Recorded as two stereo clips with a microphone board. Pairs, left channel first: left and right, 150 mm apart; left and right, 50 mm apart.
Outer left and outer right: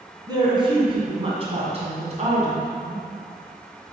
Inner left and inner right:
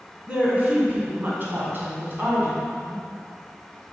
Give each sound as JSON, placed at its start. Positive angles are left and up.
{"t": 0.3, "sound": "a woman speaking", "side_deg": -30, "distance_m": 2.5}